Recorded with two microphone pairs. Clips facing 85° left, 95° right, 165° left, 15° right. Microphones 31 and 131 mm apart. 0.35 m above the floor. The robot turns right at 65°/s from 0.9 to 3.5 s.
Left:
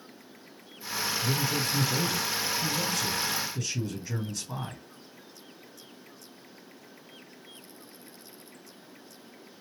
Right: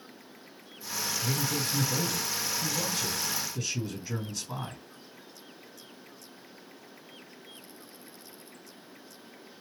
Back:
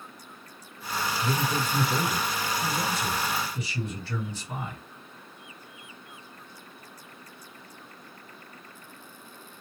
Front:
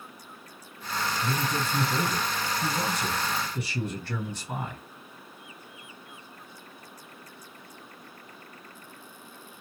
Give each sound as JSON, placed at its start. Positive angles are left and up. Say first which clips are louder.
{"t": 1.2, "sound": "a man speaking", "louder": "left 2 dB, back 3 dB", "azimuth_deg": -155, "distance_m": 2.0}